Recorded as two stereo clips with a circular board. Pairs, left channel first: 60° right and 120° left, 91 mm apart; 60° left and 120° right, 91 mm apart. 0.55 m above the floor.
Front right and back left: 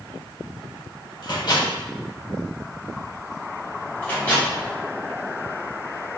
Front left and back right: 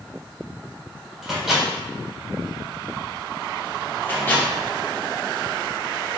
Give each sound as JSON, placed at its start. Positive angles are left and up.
{"t": 1.2, "sound": "a microwave", "azimuth_deg": -35, "distance_m": 1.3}
{"t": 4.0, "sound": "a microwave", "azimuth_deg": 5, "distance_m": 1.3}